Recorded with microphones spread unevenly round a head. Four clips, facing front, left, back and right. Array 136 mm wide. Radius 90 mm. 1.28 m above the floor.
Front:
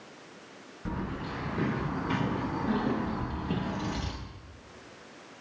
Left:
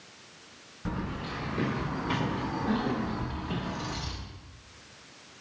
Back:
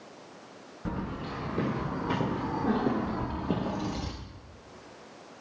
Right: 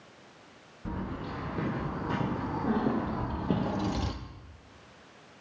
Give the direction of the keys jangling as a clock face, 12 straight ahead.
6 o'clock.